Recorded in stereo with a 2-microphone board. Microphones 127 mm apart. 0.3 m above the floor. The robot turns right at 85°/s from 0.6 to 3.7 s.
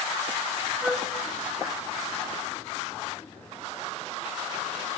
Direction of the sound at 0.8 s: 5° right (ahead or behind).